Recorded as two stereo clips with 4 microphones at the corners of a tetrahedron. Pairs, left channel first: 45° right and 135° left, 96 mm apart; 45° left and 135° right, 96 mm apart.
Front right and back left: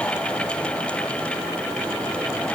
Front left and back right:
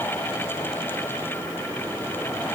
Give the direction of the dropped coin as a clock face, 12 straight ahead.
No dropped coin in this recording.